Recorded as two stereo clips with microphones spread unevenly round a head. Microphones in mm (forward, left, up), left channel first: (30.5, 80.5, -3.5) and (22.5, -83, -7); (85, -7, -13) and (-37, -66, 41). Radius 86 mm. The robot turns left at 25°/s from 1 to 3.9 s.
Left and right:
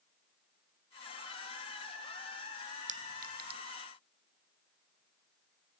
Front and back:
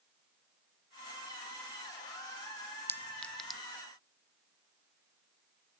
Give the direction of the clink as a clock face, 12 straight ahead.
2 o'clock.